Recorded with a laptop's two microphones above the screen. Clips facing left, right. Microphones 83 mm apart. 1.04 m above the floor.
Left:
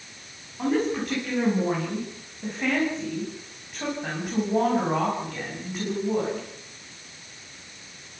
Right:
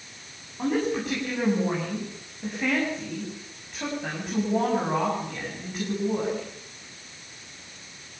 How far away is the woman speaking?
About 7 m.